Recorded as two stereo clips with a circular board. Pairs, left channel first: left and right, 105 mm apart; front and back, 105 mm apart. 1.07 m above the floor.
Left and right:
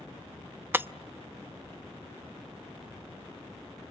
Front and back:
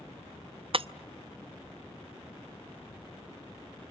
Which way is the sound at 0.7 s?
160° right.